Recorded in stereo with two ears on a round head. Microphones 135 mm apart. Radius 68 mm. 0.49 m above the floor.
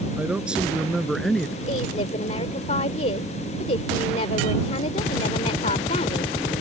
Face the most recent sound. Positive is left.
turn(degrees=45)  # may be behind; listen again after turning